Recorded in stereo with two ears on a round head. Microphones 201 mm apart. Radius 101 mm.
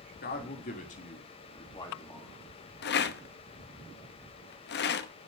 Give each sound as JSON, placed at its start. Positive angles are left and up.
{"t": 0.2, "sound": "a man speaking", "side_deg": 45, "distance_m": 3.0}
{"t": 2.8, "sound": "a rattle", "side_deg": 50, "distance_m": 0.9}